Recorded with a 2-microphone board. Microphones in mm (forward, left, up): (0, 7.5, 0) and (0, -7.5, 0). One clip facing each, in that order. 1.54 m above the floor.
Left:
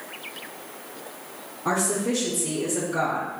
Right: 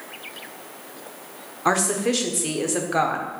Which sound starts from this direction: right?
A woman speaking, at 1.6 s.